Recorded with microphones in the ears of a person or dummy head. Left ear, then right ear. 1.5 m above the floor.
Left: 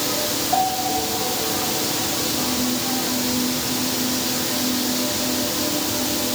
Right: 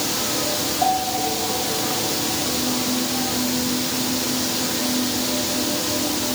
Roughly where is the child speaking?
No child speaking in this recording.